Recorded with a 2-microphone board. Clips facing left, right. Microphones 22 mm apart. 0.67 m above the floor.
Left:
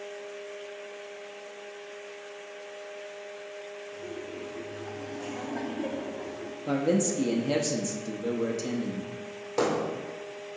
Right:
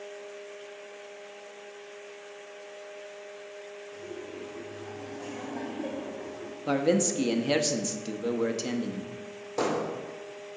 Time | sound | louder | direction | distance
3.9 | laughter | left 1 dB | 15° left (ahead or behind) | 1.8 m
6.7 | a man speaking | right 1 dB | 25° right (ahead or behind) | 0.6 m
9.6 | hammering | left 2 dB | 25° left (ahead or behind) | 1.7 m